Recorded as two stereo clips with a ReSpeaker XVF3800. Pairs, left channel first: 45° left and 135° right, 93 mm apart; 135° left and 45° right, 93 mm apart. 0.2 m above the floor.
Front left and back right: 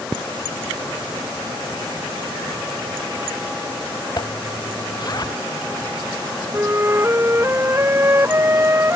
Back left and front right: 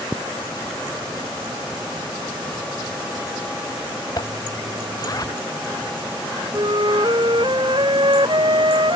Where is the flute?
75° right.